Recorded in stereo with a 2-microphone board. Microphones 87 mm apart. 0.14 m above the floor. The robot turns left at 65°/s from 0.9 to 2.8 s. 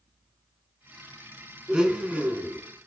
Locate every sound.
1.7 s a blender: 10° right (ahead or behind), 0.7 m; by 2.6 s 25° right (ahead or behind), 0.7 m